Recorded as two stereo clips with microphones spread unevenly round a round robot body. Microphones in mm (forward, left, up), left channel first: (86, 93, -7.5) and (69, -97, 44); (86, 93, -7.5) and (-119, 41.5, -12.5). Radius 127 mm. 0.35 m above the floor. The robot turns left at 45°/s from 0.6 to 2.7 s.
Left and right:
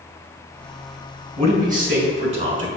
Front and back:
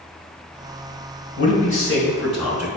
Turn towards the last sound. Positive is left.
turn(degrees=-90)